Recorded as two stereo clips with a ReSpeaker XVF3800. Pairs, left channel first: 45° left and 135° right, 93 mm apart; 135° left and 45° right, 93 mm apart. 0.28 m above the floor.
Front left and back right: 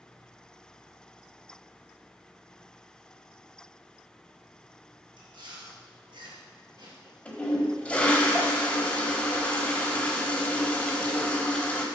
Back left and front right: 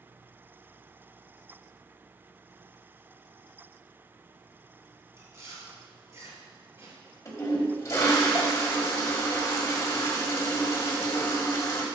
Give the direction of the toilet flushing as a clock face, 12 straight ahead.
8 o'clock.